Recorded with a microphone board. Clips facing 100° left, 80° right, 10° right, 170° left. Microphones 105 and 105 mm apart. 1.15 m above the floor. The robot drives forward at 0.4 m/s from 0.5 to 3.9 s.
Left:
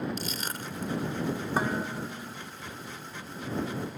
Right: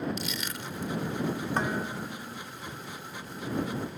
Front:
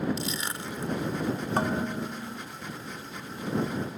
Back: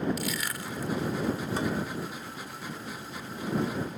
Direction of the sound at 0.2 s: 55° left.